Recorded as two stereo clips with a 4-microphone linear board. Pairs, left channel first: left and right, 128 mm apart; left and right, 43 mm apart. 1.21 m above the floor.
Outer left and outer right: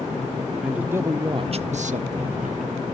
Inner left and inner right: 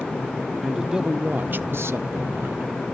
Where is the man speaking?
5° right (ahead or behind), 0.6 m; by 2.6 s 75° right (ahead or behind), 0.7 m.